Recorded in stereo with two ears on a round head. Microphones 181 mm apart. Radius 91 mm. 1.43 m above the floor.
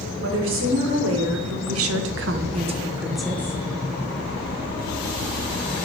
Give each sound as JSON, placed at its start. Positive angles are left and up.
{"t": 0.2, "sound": "a woman speaking", "side_deg": -70, "distance_m": 1.9}